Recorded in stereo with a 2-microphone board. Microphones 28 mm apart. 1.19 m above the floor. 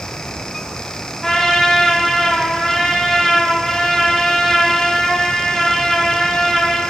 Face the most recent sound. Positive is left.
turn(degrees=15)  # may be behind; listen again after turning